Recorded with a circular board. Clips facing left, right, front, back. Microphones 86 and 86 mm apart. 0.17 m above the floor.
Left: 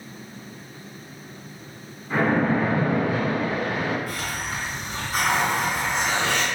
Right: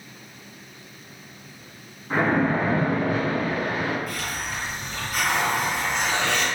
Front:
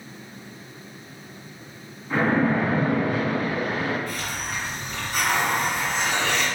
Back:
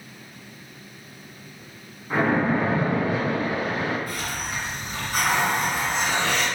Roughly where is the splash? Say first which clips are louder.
Even, even; behind right.